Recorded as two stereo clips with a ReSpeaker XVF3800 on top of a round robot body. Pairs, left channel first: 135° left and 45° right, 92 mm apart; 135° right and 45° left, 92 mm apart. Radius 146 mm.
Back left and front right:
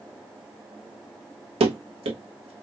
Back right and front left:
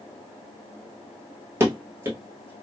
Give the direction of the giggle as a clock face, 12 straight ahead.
No giggle in this recording.